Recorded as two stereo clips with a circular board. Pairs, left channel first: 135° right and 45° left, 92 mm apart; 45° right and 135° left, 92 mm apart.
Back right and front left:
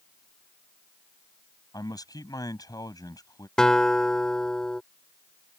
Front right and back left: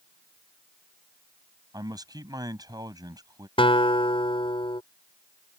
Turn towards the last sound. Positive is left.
turn(degrees=-50)